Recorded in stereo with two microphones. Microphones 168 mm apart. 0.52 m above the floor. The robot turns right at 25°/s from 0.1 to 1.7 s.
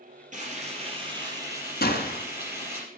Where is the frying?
50° right, 4.5 m; by 2.8 s 15° right, 4.5 m.